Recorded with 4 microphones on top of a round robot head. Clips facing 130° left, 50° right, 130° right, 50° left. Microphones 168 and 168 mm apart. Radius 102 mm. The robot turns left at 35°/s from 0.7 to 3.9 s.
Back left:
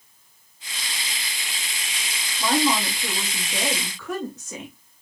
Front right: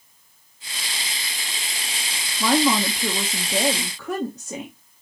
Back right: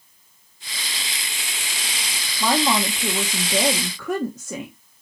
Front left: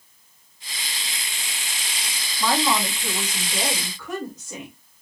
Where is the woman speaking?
55° right, 1.1 m; by 4.8 s 105° right, 1.1 m.